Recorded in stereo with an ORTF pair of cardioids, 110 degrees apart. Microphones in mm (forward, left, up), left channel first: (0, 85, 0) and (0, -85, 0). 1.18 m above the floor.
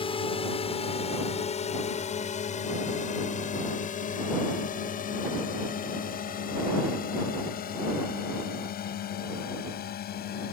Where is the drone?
30° left; by 10.6 s 60° left.